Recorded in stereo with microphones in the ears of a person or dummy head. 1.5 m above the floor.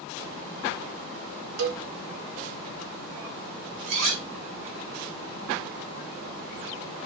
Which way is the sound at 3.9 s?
65° right (ahead or behind).